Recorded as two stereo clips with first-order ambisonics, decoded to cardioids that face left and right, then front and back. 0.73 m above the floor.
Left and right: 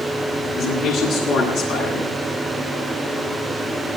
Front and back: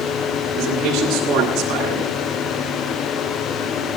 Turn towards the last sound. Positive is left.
turn(degrees=135)